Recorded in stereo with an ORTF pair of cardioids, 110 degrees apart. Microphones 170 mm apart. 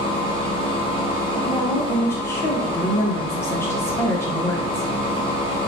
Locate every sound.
0.0 s a machine running: 30° left, 0.9 m
1.4 s a woman speaking: 15° left, 0.8 m